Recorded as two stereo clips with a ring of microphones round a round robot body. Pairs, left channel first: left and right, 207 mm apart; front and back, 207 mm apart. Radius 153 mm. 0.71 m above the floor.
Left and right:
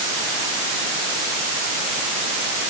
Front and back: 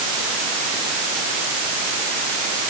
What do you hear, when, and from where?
Only background noise.